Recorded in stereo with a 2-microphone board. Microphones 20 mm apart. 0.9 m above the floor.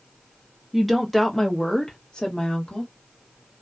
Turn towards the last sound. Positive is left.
turn(degrees=55)  # may be behind; listen again after turning